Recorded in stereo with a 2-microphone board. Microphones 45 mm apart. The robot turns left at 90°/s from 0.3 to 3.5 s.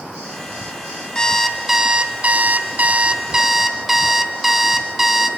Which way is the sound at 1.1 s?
40° left.